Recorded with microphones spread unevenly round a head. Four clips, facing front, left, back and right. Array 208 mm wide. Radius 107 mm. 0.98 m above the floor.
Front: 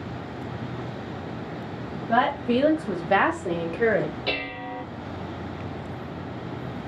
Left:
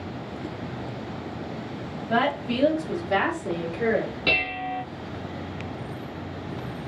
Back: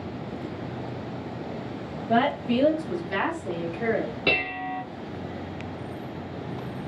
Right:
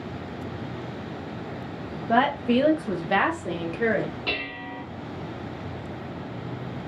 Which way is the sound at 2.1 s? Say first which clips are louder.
Right 3 dB, front 1 dB; 110° right.